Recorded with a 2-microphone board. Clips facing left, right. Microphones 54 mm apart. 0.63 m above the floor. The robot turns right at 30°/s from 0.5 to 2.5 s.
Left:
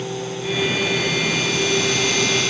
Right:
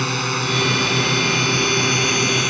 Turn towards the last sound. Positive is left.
turn(degrees=-25)